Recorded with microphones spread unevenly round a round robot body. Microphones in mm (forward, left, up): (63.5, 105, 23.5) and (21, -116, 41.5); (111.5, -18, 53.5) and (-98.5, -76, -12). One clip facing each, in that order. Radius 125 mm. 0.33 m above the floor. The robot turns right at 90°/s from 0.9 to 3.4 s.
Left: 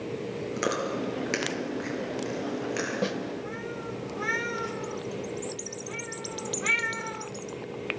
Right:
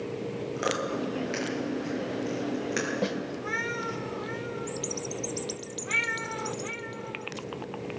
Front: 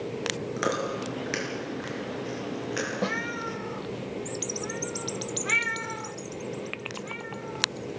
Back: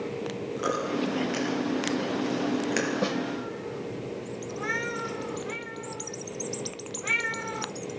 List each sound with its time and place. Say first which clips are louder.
0.6 s chewing: left 1 dB, back 2 dB; 20° left, 6.5 m; by 2.9 s 160° right, 6.5 m
3.0 s a snare drum: left 1 dB, back 2 dB; 155° left, 0.6 m; by 3.2 s 170° left, 0.6 m